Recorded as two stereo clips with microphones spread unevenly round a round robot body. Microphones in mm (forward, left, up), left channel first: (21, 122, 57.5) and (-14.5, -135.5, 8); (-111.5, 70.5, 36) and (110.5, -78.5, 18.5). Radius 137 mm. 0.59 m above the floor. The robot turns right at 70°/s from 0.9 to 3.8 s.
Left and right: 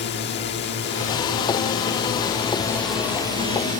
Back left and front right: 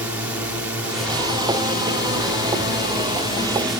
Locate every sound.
0.0 s a drone: 45° left; by 3.8 s 115° right